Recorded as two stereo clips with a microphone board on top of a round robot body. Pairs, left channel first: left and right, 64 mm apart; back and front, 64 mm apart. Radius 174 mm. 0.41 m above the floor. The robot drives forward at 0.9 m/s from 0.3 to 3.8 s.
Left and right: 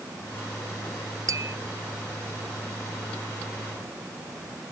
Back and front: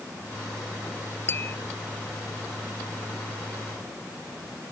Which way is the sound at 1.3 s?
125° right.